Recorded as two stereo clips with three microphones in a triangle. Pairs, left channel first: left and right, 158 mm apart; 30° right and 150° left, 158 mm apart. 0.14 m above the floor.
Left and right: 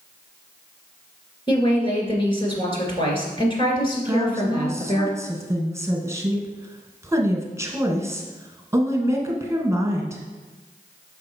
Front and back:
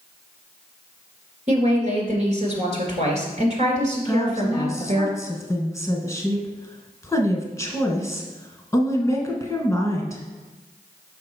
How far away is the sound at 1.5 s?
About 2 m.